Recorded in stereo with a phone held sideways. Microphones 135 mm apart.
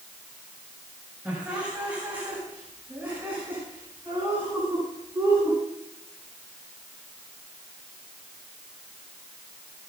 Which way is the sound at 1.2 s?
10° right (ahead or behind).